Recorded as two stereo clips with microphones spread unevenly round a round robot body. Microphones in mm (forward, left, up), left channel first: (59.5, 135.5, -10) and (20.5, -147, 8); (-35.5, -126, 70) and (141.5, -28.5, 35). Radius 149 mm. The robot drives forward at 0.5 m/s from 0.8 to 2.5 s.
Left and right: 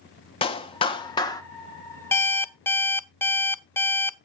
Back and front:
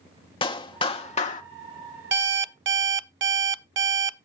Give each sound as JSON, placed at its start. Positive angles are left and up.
{"t": 0.4, "sound": "a clap", "azimuth_deg": 140, "distance_m": 0.9}
{"t": 2.1, "sound": "an alarm clock", "azimuth_deg": 0, "distance_m": 0.8}